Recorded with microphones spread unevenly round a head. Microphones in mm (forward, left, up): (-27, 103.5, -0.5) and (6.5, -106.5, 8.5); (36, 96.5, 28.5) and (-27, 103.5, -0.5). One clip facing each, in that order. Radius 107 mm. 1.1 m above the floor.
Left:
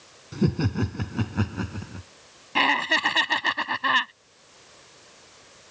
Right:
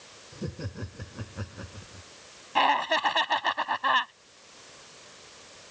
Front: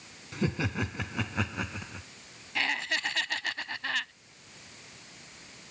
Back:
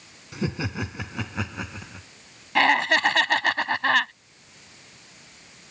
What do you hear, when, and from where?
0.3 s laughter: 90° left; by 2.1 s 80° left
2.5 s laughter: 155° left